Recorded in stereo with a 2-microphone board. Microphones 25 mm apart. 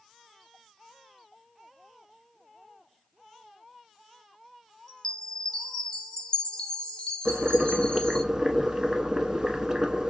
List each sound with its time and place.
4.9 s a chime: 35° left (ahead or behind), 0.8 m
7.2 s boiling: 25° right (ahead or behind), 0.7 m